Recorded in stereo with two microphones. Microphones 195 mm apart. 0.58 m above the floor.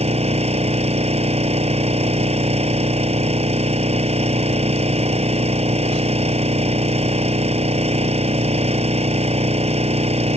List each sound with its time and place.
0.0 s an engine running: 35° right (ahead or behind)